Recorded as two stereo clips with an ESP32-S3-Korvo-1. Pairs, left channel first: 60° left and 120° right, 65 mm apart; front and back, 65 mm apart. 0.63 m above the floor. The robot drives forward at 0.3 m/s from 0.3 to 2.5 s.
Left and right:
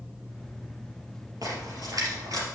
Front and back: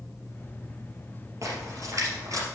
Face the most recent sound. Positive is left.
turn(degrees=-145)